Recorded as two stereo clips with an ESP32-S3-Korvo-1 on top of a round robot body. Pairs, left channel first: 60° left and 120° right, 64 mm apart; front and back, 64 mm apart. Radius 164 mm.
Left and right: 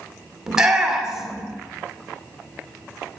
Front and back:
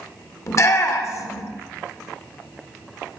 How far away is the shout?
About 2.5 m.